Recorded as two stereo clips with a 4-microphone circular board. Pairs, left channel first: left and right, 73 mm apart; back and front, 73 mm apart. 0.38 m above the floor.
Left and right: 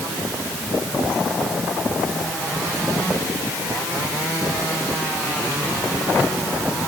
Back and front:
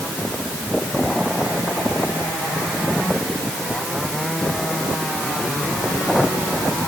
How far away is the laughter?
I don't hear laughter.